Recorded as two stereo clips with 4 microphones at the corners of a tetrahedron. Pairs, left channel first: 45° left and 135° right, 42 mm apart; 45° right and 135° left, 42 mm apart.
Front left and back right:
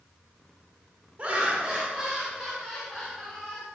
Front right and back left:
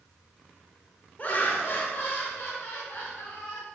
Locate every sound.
1.2 s laughter: 85° right, 1.5 m; by 3.6 s 45° right, 3.5 m